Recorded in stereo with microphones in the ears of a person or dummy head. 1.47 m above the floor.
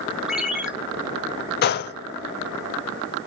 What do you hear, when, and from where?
0.3 s a ringtone: 5° right (ahead or behind), 0.7 m
1.6 s a gunshot: 45° left (ahead or behind), 0.5 m